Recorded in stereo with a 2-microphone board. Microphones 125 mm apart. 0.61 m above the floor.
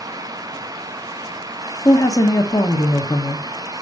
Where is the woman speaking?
30° left (ahead or behind), 1.1 m.